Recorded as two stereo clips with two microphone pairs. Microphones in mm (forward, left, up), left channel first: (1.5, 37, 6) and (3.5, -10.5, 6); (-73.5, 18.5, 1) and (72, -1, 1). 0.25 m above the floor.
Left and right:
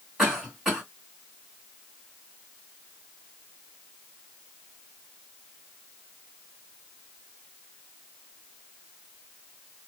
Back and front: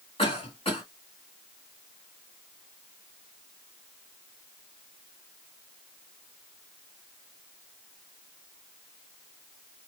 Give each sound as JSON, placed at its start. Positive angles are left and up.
{"t": 0.2, "sound": "a cough", "azimuth_deg": -175, "distance_m": 2.0}